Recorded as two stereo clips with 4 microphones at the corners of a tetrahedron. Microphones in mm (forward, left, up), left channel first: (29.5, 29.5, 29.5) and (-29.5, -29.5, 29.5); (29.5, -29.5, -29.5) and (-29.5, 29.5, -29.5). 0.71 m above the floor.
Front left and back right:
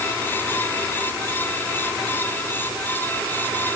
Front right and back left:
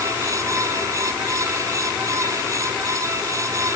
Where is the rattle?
No rattle in this recording.